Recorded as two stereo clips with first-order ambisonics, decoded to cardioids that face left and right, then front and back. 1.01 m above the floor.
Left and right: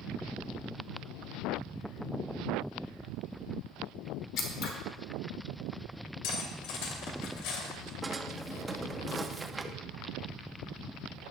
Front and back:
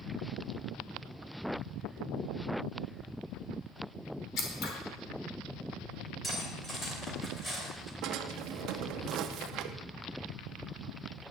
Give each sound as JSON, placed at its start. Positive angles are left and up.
{"t": 4.4, "sound": "scissors", "azimuth_deg": 45, "distance_m": 1.6}
{"t": 6.2, "sound": "cutlery clinking", "azimuth_deg": 80, "distance_m": 2.5}
{"t": 8.0, "sound": "a drawer", "azimuth_deg": -165, "distance_m": 0.5}